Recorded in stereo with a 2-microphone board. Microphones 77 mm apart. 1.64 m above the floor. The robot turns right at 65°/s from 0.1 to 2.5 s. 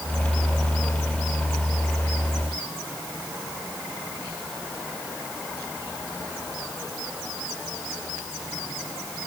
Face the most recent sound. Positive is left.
No sound to turn to.